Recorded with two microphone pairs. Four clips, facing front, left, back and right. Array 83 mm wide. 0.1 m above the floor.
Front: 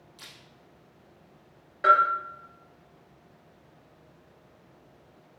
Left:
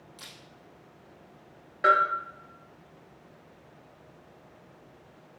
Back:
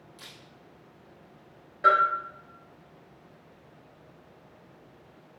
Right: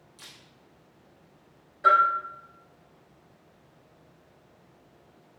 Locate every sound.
0.2 s a camera shutter: 100° left, 3 m
1.8 s a bell: 70° left, 2.5 m